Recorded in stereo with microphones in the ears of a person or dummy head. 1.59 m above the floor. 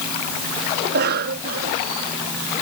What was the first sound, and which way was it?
A cough, 55° right (ahead or behind).